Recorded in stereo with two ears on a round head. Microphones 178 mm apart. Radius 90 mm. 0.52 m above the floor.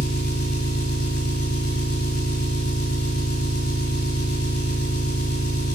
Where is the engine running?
55° left (ahead or behind), 1.6 m.